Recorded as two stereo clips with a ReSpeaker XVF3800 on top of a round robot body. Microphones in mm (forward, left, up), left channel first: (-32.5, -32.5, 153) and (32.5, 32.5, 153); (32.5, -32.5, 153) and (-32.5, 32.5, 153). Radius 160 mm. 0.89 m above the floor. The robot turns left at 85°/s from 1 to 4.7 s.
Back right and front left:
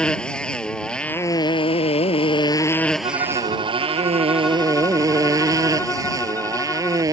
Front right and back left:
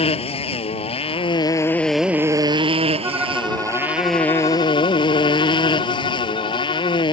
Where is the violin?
75° left; by 7.0 s 65° right.